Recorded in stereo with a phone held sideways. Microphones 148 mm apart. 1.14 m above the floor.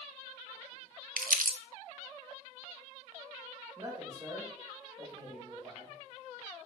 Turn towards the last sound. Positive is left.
turn(degrees=-25)  # may be behind; listen again after turning